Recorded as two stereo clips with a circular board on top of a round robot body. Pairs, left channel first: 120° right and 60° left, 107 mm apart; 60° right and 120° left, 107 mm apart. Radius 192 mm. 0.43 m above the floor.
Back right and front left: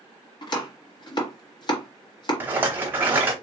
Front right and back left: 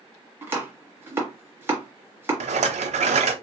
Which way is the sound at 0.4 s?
170° right.